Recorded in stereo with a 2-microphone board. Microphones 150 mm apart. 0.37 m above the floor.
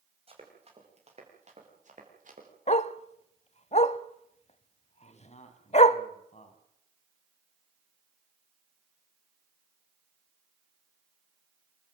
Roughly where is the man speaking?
Left.